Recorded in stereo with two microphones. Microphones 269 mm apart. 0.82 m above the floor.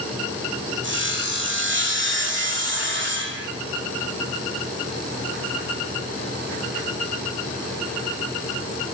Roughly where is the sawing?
Right.